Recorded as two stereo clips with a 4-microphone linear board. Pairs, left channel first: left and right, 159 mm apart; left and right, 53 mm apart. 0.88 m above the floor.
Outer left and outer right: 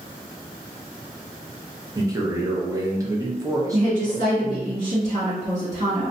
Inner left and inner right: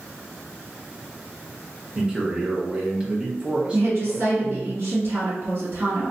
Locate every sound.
1.9 s a man speaking: 20° right (ahead or behind), 0.6 m
3.7 s a woman speaking: 55° right (ahead or behind), 1.6 m